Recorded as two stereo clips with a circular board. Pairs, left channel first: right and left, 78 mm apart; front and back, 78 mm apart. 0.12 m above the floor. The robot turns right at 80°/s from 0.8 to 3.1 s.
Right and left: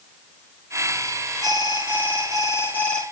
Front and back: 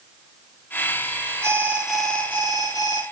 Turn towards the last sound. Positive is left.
turn(degrees=0)